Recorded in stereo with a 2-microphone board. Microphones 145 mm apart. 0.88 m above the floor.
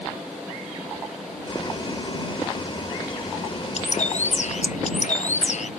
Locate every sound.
1.4 s boiling: 40° left (ahead or behind)
3.8 s a bird: 60° left (ahead or behind)